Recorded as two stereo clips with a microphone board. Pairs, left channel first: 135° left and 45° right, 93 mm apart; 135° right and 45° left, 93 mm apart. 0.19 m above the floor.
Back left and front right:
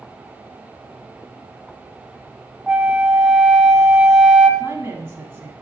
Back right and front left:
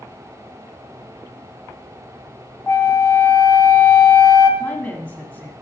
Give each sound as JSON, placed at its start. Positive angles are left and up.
{"t": 2.7, "sound": "a flute", "azimuth_deg": -110, "distance_m": 0.6}
{"t": 4.6, "sound": "a woman speaking", "azimuth_deg": -75, "distance_m": 1.2}